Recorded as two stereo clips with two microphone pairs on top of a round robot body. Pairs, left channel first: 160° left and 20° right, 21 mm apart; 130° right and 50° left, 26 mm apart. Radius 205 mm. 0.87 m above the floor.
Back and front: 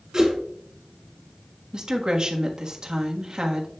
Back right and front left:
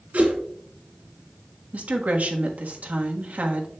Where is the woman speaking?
30° left, 1.3 m.